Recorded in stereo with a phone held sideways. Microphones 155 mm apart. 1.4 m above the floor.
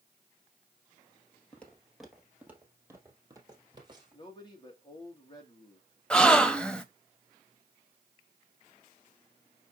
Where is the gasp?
5° left (ahead or behind), 0.7 m.